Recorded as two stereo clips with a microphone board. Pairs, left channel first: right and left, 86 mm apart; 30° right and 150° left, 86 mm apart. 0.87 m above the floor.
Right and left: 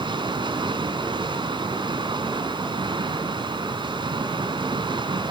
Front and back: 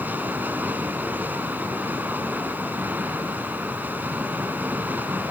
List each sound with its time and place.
0.0 s running water: 80° left, 1.8 m